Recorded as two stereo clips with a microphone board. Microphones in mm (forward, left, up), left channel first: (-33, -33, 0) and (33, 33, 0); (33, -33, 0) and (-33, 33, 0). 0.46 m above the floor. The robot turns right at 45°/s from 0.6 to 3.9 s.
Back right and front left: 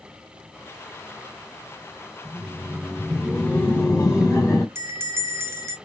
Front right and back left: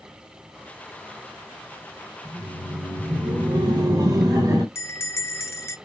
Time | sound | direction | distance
2.2 | laughter | 95° left | 1.8 m
4.8 | a bell | straight ahead | 0.5 m